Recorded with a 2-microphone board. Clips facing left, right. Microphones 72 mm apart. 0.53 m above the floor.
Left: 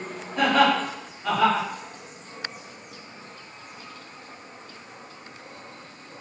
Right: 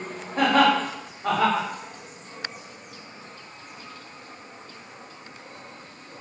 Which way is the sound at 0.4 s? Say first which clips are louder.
Right 1 dB; 40° right (ahead or behind).